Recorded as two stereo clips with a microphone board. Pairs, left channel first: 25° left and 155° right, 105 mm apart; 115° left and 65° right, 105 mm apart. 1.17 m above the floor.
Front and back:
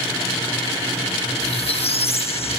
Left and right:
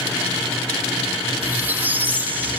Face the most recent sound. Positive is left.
turn(degrees=5)